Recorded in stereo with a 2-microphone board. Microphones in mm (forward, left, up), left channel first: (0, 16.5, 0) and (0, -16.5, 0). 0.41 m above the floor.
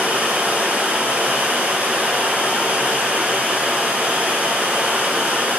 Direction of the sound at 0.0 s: 55° right (ahead or behind).